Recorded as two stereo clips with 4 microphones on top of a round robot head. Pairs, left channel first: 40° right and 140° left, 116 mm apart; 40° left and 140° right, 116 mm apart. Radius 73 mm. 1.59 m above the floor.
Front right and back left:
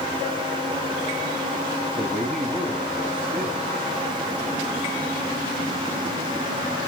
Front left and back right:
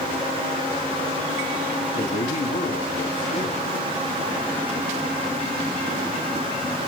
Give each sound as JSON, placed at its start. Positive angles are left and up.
{"t": 1.9, "sound": "a man speaking", "azimuth_deg": 40, "distance_m": 1.6}